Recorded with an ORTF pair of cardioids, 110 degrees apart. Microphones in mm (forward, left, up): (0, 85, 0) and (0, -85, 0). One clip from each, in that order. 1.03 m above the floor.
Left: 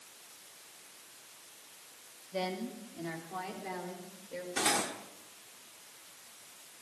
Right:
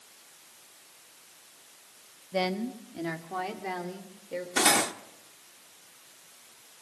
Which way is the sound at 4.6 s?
45° right.